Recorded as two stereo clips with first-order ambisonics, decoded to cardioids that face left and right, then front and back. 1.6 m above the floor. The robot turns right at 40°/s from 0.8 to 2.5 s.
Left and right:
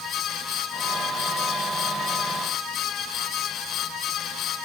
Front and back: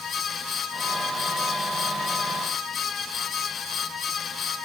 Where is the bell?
I don't hear a bell.